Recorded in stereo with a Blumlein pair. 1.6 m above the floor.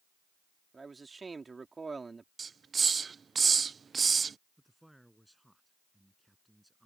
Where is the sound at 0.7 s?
15° right.